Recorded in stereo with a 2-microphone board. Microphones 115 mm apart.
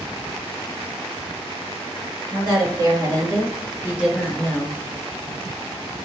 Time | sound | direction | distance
2.3 | a woman speaking | 40° right (ahead or behind) | 1.4 m